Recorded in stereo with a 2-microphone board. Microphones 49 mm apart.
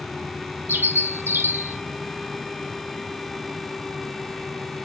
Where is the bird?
50° right (ahead or behind), 1.6 m.